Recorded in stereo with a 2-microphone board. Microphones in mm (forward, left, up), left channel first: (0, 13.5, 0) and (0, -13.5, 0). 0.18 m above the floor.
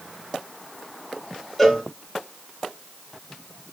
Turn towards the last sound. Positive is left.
turn(degrees=5)  # may be behind; listen again after turning